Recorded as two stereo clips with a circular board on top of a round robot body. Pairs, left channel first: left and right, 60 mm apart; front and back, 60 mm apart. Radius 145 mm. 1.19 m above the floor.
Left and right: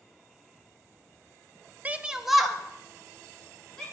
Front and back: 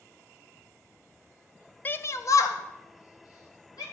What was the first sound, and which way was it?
A shout, 40° right.